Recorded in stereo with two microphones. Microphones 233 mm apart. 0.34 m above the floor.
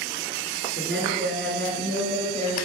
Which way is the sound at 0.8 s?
55° right (ahead or behind).